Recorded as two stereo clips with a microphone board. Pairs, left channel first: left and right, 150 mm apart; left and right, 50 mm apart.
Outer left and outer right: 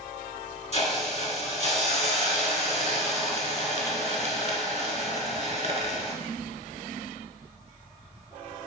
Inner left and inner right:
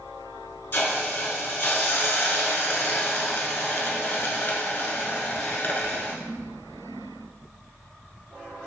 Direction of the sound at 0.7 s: 50° left (ahead or behind).